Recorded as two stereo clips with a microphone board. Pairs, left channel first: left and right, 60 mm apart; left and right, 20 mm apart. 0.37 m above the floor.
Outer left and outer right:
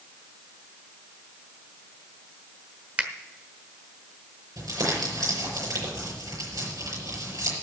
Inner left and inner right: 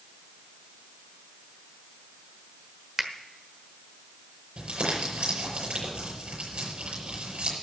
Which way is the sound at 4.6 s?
80° right.